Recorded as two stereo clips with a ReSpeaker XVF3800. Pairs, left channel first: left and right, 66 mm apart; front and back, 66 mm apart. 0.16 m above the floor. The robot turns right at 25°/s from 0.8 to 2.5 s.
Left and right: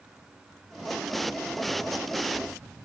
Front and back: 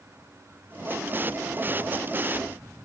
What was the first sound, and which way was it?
Only background noise.